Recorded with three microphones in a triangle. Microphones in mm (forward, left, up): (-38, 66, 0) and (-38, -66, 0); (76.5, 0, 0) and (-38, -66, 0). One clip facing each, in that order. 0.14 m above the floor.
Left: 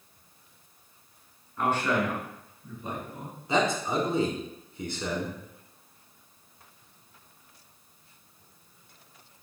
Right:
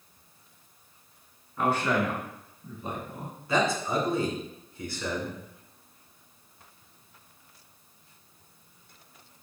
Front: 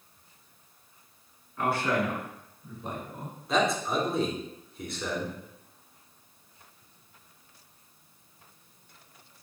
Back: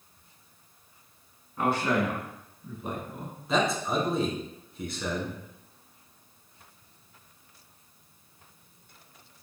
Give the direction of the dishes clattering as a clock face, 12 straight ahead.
I don't hear dishes clattering.